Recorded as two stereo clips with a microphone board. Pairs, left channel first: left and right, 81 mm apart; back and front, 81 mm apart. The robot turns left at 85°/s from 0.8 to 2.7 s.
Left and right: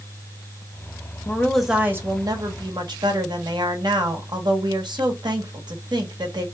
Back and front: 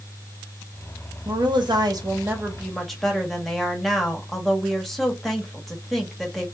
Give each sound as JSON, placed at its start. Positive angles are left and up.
{"t": 1.2, "sound": "a woman speaking", "azimuth_deg": 30, "distance_m": 1.1}